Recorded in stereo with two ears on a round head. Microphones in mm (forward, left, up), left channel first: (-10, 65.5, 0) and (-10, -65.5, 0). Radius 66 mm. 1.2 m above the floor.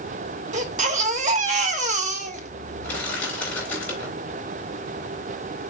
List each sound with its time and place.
0.5 s a baby crying: 55° right (ahead or behind), 1.6 m
2.8 s crushing: 10° left (ahead or behind), 4 m